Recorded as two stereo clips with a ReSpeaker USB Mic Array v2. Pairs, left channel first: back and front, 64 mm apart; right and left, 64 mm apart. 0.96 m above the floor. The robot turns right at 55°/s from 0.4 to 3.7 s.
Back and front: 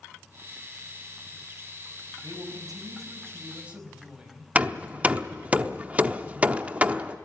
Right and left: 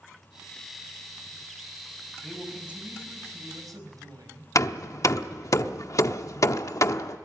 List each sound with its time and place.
2.2 s a man speaking: 10° right, 4.5 m; by 4.5 s 75° left, 4.5 m
4.5 s hammering: 65° right, 0.8 m